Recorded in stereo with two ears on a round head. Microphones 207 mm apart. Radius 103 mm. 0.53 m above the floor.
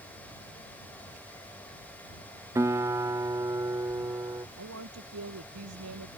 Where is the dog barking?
No dog barking in this recording.